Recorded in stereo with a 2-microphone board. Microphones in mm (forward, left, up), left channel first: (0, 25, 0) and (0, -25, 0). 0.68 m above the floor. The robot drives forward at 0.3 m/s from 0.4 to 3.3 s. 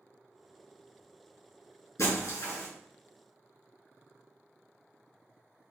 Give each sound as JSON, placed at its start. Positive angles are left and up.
{"t": 2.0, "sound": "breaking glass", "side_deg": 85, "distance_m": 3.5}